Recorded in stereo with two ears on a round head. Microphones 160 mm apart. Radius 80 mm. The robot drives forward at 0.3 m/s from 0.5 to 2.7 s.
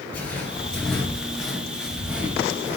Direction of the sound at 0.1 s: 10° left (ahead or behind).